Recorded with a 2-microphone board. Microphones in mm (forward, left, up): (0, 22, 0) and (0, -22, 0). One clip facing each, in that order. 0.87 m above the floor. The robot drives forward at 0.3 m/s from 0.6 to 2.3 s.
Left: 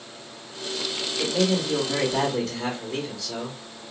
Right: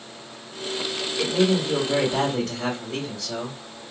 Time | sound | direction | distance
1.2 | a man speaking | 40° right (ahead or behind) | 2.5 m